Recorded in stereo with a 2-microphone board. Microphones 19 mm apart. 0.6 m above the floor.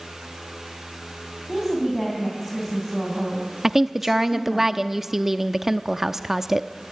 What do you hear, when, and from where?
1.5 s a woman speaking: 5° left (ahead or behind), 4.5 m
3.6 s a woman speaking: 20° right (ahead or behind), 0.6 m